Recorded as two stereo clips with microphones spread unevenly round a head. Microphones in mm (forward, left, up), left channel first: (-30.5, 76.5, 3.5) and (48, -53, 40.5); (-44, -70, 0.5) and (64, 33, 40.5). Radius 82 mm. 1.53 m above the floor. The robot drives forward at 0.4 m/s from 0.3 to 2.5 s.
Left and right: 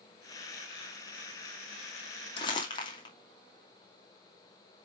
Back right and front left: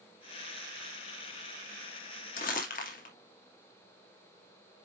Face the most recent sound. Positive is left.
turn(degrees=-175)